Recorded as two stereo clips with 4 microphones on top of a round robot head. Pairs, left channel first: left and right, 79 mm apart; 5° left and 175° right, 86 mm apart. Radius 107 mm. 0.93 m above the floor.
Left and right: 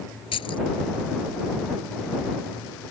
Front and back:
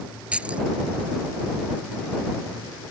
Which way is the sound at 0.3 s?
105° left.